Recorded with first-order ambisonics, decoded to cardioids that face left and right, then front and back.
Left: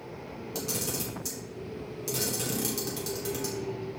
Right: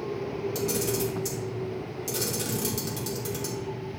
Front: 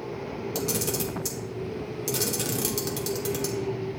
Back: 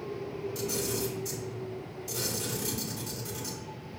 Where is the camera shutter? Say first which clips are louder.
Right 4 dB, front 4 dB; straight ahead, 1.1 m.